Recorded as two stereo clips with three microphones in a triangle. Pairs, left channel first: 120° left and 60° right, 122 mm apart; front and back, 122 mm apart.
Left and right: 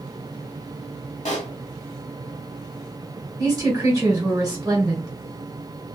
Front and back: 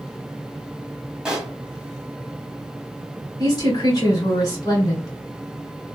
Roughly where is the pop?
Left.